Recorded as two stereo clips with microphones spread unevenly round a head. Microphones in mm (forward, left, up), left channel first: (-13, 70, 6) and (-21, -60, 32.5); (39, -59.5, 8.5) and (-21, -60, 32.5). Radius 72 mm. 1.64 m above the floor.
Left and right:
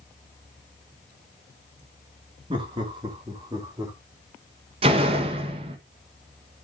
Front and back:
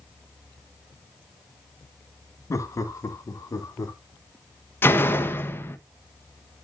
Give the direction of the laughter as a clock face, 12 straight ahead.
1 o'clock.